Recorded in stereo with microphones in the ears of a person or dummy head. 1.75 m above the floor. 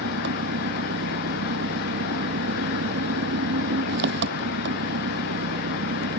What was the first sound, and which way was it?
An engine running, 60° right (ahead or behind).